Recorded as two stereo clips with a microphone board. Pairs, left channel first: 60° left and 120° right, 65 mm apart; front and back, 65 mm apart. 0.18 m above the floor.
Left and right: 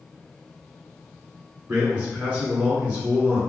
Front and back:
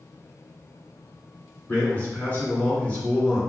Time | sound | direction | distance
1.7 | a man speaking | 55° right | 1.9 m